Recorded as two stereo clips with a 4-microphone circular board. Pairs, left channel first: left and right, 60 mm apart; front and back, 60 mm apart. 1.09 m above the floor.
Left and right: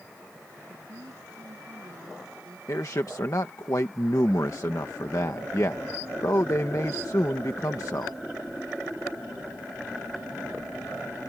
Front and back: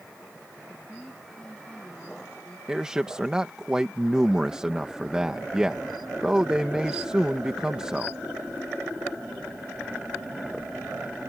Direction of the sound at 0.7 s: 80° right.